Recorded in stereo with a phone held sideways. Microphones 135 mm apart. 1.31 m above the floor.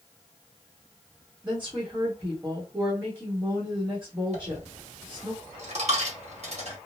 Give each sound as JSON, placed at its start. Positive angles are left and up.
{"t": 1.4, "sound": "a woman speaking", "side_deg": -15, "distance_m": 1.1}
{"t": 4.3, "sound": "a dropped coin", "side_deg": -55, "distance_m": 1.3}